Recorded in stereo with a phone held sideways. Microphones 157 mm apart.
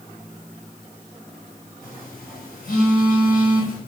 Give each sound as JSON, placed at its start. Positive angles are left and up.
{"t": 1.8, "sound": "a phone buzzing", "side_deg": 60, "distance_m": 2.5}